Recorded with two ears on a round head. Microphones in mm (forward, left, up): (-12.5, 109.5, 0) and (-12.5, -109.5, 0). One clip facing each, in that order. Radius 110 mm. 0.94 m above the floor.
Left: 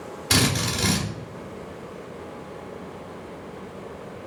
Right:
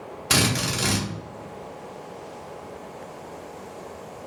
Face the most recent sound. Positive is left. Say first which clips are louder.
# left 1 dB
turn(degrees=-5)  # may be behind; listen again after turning